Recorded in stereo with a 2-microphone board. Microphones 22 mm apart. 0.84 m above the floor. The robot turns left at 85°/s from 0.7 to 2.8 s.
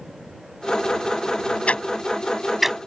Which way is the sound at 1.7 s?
75° left (ahead or behind).